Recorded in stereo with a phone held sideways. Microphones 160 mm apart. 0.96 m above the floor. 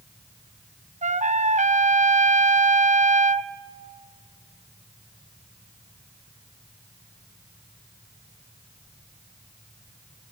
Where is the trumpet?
50° right (ahead or behind), 0.6 m.